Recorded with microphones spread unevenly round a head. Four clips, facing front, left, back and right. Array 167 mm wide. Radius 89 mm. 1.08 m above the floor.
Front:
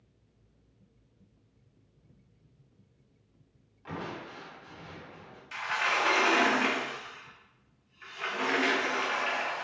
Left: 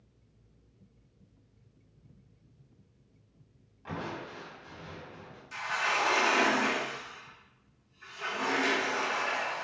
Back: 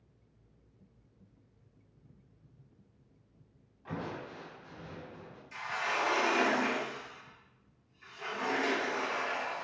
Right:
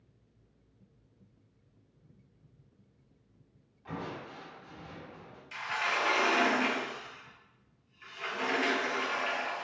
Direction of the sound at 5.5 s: 10° left.